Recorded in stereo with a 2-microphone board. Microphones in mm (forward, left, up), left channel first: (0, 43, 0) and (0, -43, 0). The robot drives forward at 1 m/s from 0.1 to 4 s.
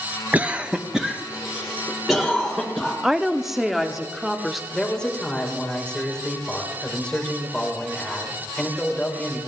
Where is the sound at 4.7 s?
10° left (ahead or behind), 3 m.